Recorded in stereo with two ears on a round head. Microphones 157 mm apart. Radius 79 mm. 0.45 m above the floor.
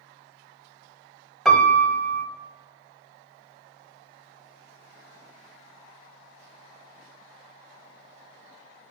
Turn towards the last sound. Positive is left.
turn(degrees=0)  # may be behind; listen again after turning